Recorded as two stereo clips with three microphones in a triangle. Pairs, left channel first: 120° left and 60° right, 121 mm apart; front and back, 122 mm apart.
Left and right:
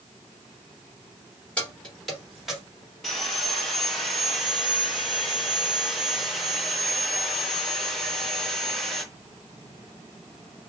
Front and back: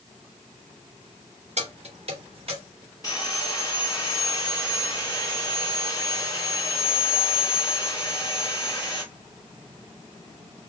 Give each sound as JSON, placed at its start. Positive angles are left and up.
{"t": 1.6, "sound": "keys jangling", "azimuth_deg": -160, "distance_m": 2.5}
{"t": 3.0, "sound": "sawing", "azimuth_deg": 30, "distance_m": 1.7}